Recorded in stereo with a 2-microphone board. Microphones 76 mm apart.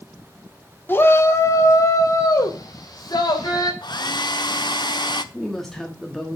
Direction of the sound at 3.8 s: 65° left (ahead or behind).